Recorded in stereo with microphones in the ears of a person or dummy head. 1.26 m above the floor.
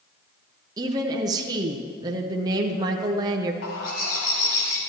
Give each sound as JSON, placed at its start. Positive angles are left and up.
{"t": 0.8, "sound": "a woman speaking", "side_deg": -20, "distance_m": 0.6}
{"t": 3.6, "sound": "a bird", "side_deg": 60, "distance_m": 2.0}